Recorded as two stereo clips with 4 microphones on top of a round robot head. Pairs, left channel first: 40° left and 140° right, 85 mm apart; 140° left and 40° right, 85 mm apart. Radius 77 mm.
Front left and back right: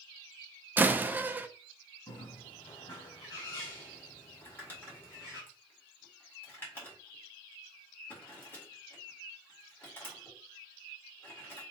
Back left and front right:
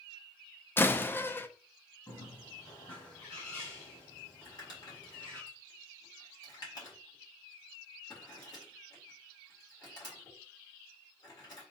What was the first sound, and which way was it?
A door slam, 175° left.